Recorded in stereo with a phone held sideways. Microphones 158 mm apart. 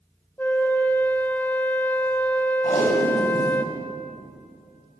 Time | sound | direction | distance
0.4 | a flute | 10° left (ahead or behind) | 0.6 m
2.6 | tape being pulled | 50° left (ahead or behind) | 2 m